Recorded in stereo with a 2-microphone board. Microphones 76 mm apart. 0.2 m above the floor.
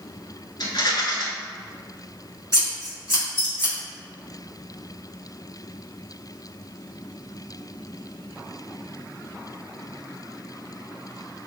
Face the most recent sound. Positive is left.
turn(degrees=35)  # may be behind; listen again after turning